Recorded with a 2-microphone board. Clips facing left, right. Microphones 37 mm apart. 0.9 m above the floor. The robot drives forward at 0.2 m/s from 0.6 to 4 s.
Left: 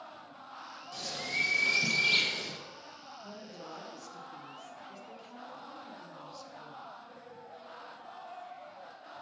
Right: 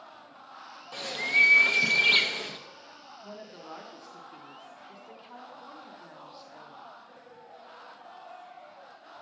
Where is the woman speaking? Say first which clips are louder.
Right 3 dB; 20° right (ahead or behind), 0.8 m.